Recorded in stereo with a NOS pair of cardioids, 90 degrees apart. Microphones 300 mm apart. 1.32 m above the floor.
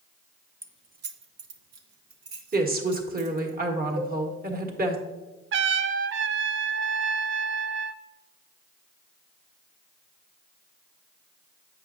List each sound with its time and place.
0.6 s keys jangling: 10° right, 0.6 m; by 3.5 s 75° right, 2.5 m
2.5 s a woman speaking: 30° right, 1.5 m
4.0 s a cowbell: 70° right, 1.3 m
5.5 s a trumpet: 40° right, 0.5 m